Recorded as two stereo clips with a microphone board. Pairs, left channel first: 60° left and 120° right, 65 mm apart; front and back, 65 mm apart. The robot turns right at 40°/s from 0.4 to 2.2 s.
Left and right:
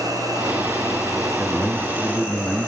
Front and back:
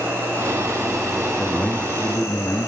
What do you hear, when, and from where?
0.0 s an insect: 120° right, 8.5 m; by 2.7 s 45° right, 8.5 m
1.4 s a man speaking: 65° right, 4 m; by 2.7 s 30° right, 4 m